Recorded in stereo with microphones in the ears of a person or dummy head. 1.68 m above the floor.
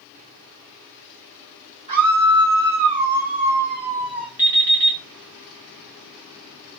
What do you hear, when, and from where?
1.9 s a scream: 30° right (ahead or behind), 1.7 m
4.4 s an alarm clock: 10° right (ahead or behind), 2.0 m